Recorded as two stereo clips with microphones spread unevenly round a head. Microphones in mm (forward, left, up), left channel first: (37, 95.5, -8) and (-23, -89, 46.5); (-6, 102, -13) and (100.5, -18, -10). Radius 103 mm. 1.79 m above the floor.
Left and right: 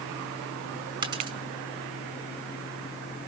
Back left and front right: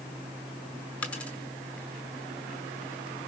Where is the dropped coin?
145° right, 1.8 m.